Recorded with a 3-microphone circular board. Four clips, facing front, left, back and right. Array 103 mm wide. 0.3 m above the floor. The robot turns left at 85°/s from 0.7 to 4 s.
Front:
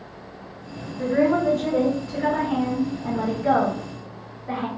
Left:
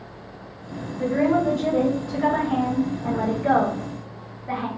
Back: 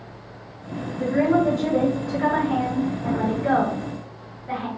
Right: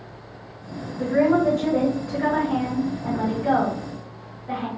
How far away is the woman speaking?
About 0.9 m.